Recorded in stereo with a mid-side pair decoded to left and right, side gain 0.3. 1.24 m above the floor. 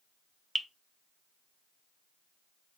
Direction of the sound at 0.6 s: Straight ahead.